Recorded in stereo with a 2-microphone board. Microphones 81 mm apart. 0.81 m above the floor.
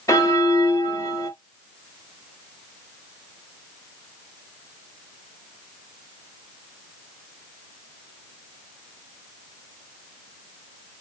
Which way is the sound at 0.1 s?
45° left (ahead or behind).